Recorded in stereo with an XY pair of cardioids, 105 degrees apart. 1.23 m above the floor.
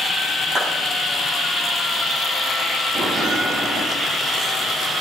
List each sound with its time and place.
0.6 s a clap: straight ahead, 9 m
3.0 s a bell: 5° right, 9.5 m